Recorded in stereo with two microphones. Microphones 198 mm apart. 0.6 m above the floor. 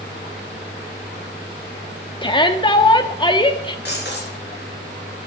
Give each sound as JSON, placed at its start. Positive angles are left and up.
{"t": 2.2, "sound": "a shout", "side_deg": 25, "distance_m": 0.9}
{"t": 3.9, "sound": "breaking glass", "side_deg": 60, "distance_m": 4.5}